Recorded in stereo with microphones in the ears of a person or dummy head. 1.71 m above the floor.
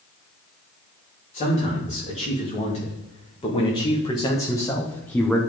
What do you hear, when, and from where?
1.3 s a man speaking: 30° left (ahead or behind), 3 m; by 5.4 s centre (ahead or behind), 1.1 m